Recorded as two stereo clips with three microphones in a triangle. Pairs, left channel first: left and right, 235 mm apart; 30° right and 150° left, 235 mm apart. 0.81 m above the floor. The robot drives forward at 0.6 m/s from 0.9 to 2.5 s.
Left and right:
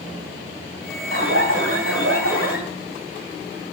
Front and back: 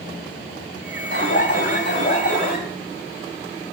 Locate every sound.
1.1 s an alarm: 65° right, 4 m; by 2.6 s 75° right, 3.5 m